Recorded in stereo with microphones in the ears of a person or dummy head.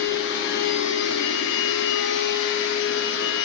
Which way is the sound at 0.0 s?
65° left (ahead or behind).